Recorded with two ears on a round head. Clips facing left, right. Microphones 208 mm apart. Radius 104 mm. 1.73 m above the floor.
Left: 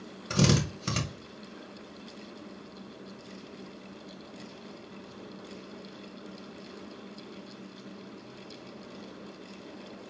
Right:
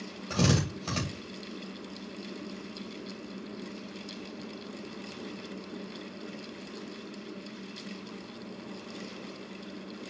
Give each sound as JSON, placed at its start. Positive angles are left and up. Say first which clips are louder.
{"t": 0.3, "sound": "a drill", "louder": "left 2 dB", "side_deg": 25, "distance_m": 2.5}